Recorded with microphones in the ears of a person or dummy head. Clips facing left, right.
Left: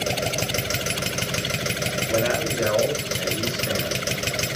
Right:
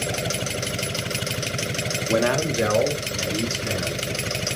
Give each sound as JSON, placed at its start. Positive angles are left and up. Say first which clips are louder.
{"t": 2.1, "sound": "a man speaking", "louder": "right 3 dB", "side_deg": -65, "distance_m": 1.0}